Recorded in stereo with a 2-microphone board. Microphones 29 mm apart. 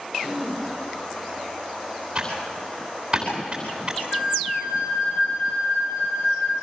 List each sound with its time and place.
0.2 s throat clearing: 10° right (ahead or behind), 5 m
2.1 s typing on a keyboard: 25° right (ahead or behind), 10 m
4.1 s a flute: 55° left (ahead or behind), 4.5 m